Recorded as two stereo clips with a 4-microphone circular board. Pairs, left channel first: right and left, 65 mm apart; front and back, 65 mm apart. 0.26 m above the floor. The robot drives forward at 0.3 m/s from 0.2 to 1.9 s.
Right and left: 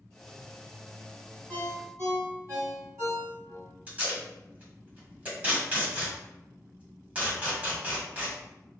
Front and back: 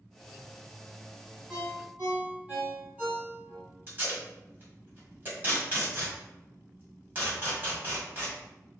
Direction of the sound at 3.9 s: 145° left.